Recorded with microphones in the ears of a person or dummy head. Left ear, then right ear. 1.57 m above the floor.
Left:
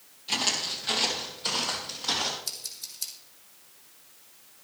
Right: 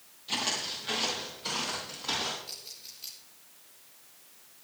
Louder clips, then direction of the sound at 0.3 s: Left 4 dB; 20° left (ahead or behind).